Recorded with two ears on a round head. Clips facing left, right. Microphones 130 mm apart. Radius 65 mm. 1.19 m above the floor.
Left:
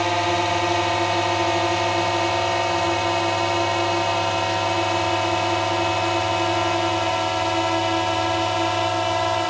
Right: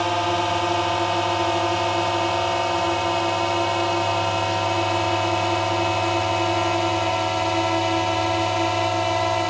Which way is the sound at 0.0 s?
5° left (ahead or behind).